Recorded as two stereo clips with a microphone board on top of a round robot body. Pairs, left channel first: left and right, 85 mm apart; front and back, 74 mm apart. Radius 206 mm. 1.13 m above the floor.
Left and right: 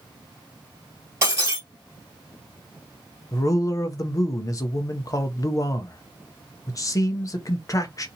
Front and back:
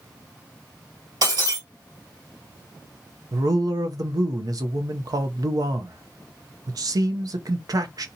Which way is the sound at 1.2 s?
150° right.